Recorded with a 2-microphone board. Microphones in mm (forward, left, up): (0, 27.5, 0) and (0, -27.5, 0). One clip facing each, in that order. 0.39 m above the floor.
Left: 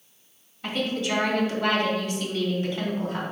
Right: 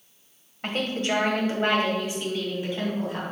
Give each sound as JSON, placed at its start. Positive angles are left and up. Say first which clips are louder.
{"t": 0.6, "sound": "a woman speaking", "louder": "even", "side_deg": -50, "distance_m": 1.9}